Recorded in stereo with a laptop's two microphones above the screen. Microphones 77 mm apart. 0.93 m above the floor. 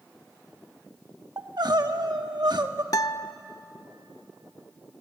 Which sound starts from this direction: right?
Crying, at 1.4 s.